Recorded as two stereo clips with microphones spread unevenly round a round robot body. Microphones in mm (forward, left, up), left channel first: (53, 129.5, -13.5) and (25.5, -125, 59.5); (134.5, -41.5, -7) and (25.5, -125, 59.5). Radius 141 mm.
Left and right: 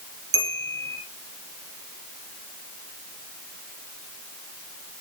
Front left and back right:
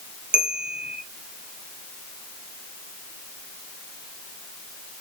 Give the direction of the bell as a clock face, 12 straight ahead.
2 o'clock.